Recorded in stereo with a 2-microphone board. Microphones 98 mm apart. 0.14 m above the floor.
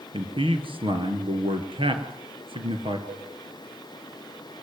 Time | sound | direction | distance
0.1 | a man speaking | 60° right (ahead or behind) | 3 m
3.1 | a cowbell | 30° right (ahead or behind) | 6.5 m